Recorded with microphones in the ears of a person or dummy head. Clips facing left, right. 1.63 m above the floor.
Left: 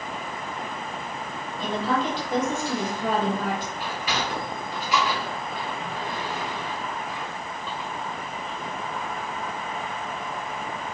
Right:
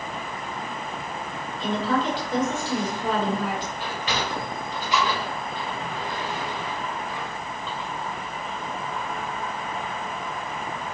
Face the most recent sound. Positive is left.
turn(degrees=5)  # may be behind; listen again after turning